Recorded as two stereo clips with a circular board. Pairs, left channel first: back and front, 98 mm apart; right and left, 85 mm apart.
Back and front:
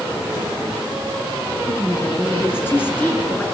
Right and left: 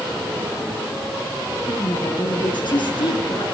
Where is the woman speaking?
120° right, 6.5 m; by 3.4 s 110° right, 7 m.